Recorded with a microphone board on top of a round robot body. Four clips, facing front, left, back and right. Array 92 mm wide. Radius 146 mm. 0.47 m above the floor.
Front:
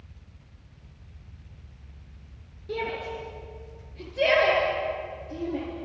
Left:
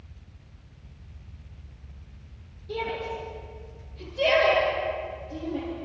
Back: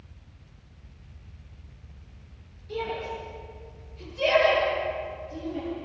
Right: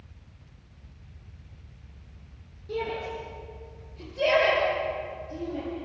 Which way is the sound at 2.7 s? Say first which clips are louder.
Even, even; 15° right.